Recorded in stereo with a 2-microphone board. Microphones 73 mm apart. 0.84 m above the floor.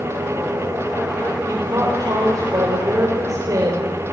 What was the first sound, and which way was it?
A woman speaking, 55° right (ahead or behind).